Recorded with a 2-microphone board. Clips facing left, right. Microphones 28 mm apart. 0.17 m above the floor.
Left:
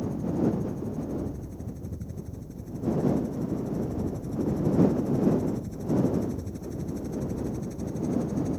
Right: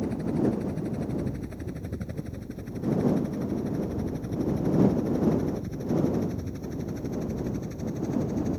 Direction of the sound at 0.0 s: 60° right (ahead or behind).